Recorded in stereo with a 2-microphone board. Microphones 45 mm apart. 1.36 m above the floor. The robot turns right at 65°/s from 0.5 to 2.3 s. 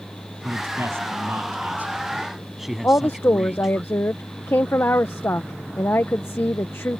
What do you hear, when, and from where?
0.4 s a man speaking: 125° right; by 3.8 s 5° right
2.8 s a woman speaking: 65° left (ahead or behind)